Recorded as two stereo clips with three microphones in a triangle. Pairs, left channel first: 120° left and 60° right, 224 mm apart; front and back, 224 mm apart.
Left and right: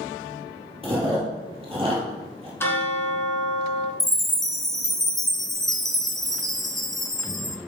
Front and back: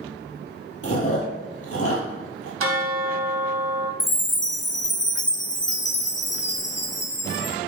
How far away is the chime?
About 0.7 m.